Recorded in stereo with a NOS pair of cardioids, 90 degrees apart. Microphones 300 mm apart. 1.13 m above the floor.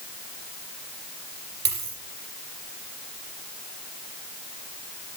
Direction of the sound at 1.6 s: 35° right.